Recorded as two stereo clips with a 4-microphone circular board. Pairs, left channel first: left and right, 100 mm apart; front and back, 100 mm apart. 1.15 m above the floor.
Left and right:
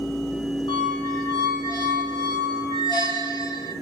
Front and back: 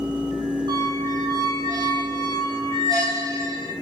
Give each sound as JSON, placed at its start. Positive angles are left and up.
{"t": 0.7, "sound": "a squeak", "azimuth_deg": 130, "distance_m": 1.7}